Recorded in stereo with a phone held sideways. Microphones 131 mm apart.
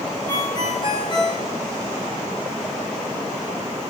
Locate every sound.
0.3 s a ringtone: 40° left (ahead or behind), 3 m